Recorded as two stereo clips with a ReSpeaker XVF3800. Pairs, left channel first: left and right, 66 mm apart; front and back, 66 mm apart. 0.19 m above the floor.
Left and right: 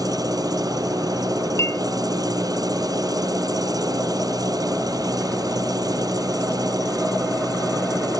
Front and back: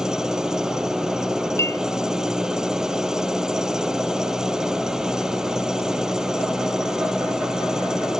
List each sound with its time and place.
0.0 s an engine running: 100° right
1.6 s a clink: 45° left